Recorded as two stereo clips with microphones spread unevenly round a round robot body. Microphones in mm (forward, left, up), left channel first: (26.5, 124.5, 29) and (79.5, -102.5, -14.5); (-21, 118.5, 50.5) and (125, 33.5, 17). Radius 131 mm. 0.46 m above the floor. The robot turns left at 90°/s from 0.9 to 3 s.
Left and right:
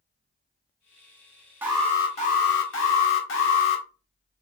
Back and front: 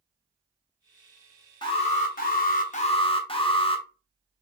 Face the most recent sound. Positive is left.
turn(degrees=95)